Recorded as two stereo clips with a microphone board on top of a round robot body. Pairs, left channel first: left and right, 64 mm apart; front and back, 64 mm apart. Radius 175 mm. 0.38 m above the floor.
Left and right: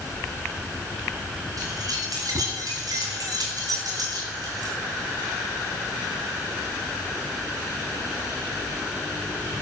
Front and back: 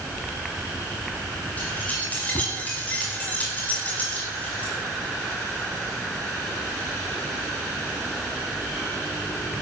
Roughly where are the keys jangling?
Ahead right.